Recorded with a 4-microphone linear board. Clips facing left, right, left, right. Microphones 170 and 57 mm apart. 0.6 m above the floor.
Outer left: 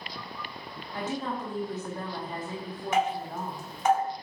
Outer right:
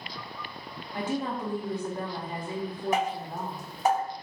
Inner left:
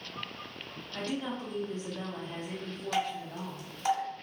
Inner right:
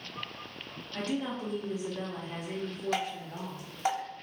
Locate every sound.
0.9 s a woman speaking: 15° right (ahead or behind), 0.6 m
2.9 s dripping: 35° right (ahead or behind), 2.0 m